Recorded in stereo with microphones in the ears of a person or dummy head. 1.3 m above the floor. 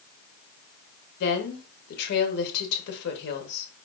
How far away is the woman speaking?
About 0.9 m.